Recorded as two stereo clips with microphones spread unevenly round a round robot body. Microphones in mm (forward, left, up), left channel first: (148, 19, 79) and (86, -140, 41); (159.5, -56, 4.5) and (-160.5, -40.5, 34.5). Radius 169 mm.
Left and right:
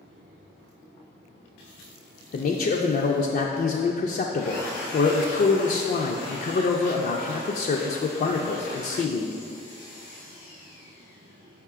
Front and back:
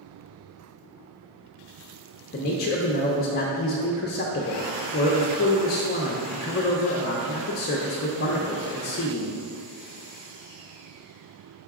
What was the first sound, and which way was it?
A man speaking, 35° left.